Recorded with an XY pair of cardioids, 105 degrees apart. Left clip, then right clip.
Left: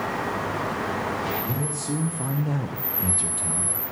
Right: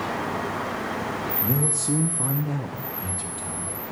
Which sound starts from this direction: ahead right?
A man speaking, at 1.4 s.